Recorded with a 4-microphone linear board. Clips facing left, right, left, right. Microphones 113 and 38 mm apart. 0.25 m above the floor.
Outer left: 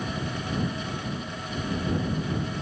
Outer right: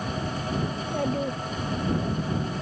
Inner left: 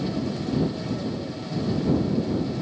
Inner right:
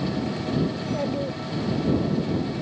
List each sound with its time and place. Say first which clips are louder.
0.7 s a child speaking: outer right 6 dB, inner right 3 dB; 75° right (ahead or behind); by 2.2 s 70° right (ahead or behind)